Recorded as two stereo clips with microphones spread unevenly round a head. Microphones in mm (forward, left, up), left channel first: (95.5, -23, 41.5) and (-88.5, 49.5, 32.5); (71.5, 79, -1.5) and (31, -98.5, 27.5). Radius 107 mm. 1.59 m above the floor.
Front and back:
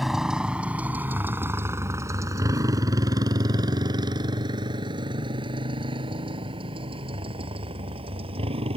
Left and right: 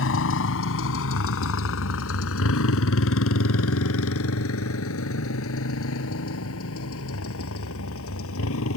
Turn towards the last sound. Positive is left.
turn(degrees=95)